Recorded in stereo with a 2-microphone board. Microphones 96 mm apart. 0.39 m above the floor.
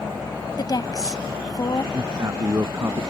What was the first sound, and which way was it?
A woman speaking, 45° left (ahead or behind).